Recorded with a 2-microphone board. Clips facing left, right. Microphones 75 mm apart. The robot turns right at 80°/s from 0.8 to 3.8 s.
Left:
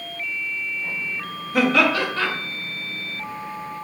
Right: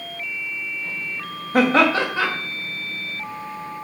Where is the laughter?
70° right, 0.6 m; by 2.3 s 10° right, 0.6 m.